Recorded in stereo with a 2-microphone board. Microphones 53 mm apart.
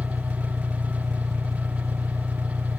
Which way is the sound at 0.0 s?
80° right.